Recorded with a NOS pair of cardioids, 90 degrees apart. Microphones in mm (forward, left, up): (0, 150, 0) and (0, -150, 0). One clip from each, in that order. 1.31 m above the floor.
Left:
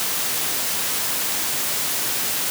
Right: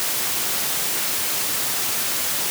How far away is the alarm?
No alarm in this recording.